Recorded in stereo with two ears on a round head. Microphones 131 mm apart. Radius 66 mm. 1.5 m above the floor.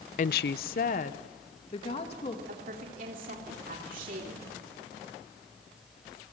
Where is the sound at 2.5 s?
60° right (ahead or behind), 3 m.